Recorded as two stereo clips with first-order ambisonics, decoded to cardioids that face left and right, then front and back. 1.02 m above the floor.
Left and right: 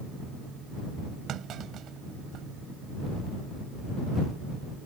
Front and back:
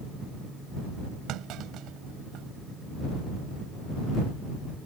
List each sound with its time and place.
1.3 s a clunk: 140° right